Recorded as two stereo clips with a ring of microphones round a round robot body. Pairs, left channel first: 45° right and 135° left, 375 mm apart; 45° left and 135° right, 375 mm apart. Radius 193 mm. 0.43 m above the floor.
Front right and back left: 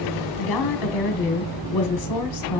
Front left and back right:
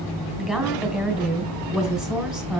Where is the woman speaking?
50° right, 1.6 m.